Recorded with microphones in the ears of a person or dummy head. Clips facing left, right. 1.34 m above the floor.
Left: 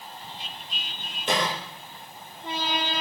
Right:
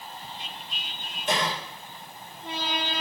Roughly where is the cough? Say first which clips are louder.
Left 1 dB; left.